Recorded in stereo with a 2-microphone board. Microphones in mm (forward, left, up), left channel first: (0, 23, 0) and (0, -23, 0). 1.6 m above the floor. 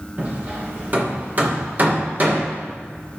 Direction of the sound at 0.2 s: 40° right (ahead or behind).